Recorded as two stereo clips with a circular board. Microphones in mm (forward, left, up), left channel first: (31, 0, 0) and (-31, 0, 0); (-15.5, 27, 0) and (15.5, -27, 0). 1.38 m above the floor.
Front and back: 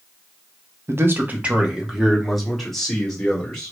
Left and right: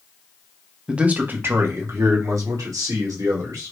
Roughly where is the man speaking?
Behind right.